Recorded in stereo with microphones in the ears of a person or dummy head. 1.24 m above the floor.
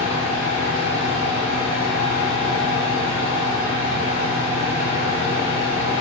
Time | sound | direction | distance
0.0 | a fan | 30° left (ahead or behind) | 1.8 m